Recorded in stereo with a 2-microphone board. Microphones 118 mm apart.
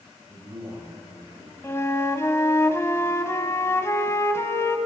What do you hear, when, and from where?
0.3 s a man speaking: 25° right (ahead or behind), 8 m; by 1.5 s 30° right (ahead or behind), 7 m
1.6 s a flute: 25° left (ahead or behind), 1.5 m